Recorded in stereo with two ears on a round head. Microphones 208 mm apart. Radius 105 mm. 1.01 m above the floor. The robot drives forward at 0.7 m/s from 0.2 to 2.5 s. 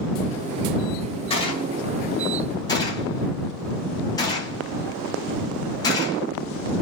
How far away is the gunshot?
About 2.0 m.